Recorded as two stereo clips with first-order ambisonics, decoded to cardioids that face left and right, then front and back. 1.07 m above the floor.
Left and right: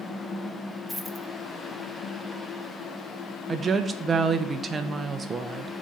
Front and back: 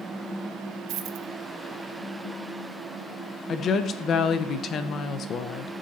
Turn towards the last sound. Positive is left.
turn(degrees=-30)